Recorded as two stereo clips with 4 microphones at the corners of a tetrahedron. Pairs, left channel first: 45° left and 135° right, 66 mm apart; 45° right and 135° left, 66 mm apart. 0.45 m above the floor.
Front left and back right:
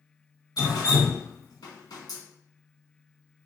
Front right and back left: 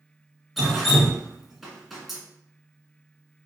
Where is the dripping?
45° left, 0.9 m.